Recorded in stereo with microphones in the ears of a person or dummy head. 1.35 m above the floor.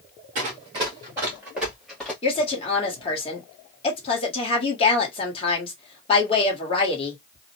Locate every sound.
0.3 s running footsteps: 35° right (ahead or behind), 1.6 m; by 2.1 s centre (ahead or behind), 1.7 m
2.2 s a woman speaking: 30° left (ahead or behind), 1.3 m